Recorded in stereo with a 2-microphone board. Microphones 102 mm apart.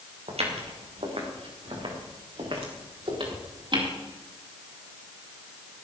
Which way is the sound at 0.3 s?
75° right (ahead or behind).